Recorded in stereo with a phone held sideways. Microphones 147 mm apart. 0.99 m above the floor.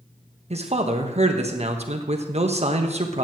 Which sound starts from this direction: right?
A man speaking, at 0.5 s.